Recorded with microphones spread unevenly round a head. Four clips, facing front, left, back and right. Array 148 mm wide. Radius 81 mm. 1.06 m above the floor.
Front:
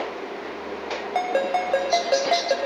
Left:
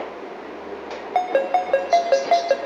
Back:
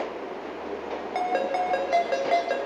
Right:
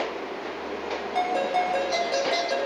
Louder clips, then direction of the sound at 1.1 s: Left 5 dB, front 3 dB; 85° left.